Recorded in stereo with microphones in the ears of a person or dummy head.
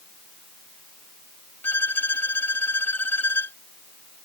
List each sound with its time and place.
1.6 s a violin: 15° left (ahead or behind)